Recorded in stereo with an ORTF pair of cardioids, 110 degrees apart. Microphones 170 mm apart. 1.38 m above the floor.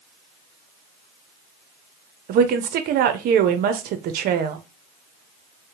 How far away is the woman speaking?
About 0.6 m.